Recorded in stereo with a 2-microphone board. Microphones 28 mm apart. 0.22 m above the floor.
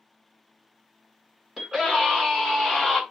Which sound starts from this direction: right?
A scream, at 1.6 s.